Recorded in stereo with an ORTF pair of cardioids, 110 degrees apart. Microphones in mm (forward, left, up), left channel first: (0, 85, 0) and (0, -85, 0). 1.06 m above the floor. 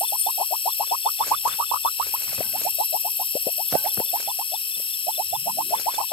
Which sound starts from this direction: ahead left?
An insect, at 0.0 s.